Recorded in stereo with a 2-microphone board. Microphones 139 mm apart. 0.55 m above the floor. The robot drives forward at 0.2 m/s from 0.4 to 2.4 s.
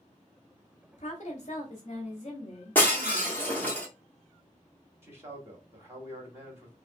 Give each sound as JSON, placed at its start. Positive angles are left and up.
{"t": 0.9, "sound": "a woman speaking", "side_deg": 50, "distance_m": 0.9}
{"t": 2.8, "sound": "breaking glass", "side_deg": 10, "distance_m": 1.1}
{"t": 5.0, "sound": "a man speaking", "side_deg": -15, "distance_m": 1.5}